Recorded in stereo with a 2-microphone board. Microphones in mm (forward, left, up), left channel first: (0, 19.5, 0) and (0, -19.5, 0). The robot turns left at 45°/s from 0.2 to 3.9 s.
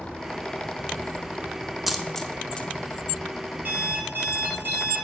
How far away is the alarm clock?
About 2.5 m.